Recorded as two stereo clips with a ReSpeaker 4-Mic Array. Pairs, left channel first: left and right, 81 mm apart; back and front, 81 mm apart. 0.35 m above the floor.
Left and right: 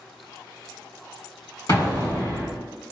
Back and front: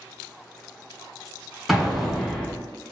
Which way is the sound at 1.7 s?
85° left.